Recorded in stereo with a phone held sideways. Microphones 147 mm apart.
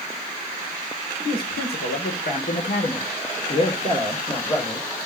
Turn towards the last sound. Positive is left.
turn(degrees=20)  # may be behind; listen again after turning